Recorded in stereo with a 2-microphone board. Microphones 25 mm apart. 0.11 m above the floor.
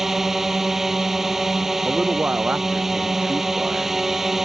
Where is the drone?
15° right (ahead or behind).